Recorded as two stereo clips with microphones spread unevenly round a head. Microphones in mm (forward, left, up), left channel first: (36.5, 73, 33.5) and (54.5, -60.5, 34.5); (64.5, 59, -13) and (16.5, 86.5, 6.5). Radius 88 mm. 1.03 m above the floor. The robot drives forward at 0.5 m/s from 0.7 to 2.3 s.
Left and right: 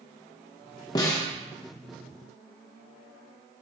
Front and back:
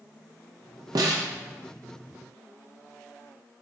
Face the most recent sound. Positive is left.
turn(degrees=170)